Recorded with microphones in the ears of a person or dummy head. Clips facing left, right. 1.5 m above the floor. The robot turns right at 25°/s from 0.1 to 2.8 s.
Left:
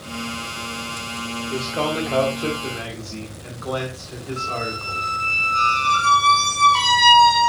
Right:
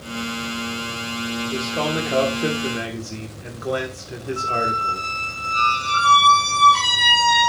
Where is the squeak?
20° right (ahead or behind), 1.8 m.